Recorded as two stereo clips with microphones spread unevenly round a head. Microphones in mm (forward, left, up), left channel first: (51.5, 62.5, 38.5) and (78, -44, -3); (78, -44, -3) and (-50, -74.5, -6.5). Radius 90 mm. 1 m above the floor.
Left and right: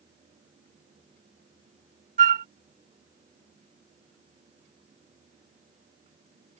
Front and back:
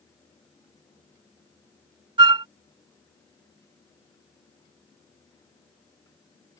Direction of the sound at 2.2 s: 125° right.